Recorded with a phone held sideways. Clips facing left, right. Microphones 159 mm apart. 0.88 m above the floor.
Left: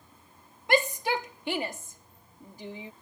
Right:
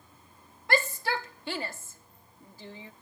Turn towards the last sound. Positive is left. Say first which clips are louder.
# left 3 dB
turn(degrees=15)  # may be behind; listen again after turning